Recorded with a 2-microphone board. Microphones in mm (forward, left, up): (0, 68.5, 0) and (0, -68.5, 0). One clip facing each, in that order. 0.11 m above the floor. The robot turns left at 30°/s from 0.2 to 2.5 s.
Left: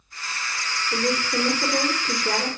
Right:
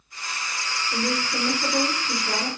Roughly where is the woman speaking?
Behind left.